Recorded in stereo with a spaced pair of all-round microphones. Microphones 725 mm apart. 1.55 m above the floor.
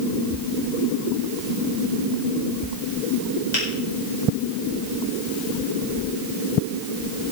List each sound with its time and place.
3.5 s a finger snap: 70° left (ahead or behind), 5 m